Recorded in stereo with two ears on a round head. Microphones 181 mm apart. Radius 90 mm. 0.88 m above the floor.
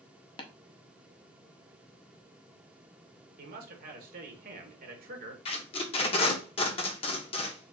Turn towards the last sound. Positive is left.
turn(degrees=30)  # may be behind; listen again after turning